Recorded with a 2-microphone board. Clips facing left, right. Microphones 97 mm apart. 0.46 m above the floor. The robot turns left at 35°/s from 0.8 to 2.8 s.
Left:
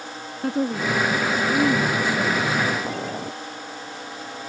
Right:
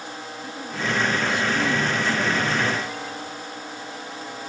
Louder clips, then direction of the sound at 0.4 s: Left 7 dB; 60° left.